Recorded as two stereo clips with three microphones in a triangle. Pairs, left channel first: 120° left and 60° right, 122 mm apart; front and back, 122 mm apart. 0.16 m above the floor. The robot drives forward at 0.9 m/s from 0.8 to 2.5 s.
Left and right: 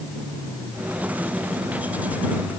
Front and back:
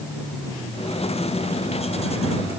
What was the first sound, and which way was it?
Only background noise.